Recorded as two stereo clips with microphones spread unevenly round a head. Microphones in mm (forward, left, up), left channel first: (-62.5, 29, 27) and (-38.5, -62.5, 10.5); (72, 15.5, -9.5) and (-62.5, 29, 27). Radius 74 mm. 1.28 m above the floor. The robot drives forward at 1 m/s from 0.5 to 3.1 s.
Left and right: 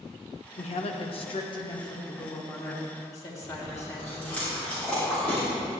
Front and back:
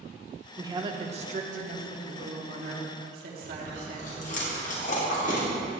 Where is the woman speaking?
105° left, 1.1 m; by 4.4 s 160° left, 3 m.